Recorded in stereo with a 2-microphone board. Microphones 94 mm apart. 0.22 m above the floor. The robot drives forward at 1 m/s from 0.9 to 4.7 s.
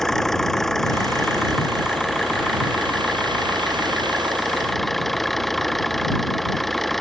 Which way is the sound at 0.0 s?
5° left (ahead or behind).